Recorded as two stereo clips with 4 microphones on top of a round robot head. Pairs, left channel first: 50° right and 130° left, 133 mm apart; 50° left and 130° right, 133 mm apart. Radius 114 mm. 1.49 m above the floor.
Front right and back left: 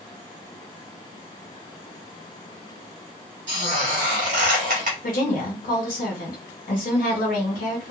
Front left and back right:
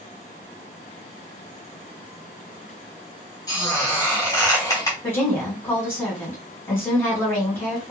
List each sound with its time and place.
3.5 s a squeak: 105° left, 0.8 m
5.0 s a woman speaking: 25° right, 1.4 m